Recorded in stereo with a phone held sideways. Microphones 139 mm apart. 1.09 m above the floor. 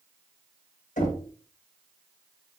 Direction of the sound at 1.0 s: 75° left (ahead or behind).